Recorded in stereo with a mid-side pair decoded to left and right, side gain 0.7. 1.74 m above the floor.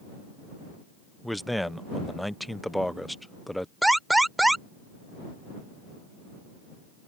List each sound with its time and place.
1.2 s a man speaking: straight ahead
3.8 s an alarm: 5° right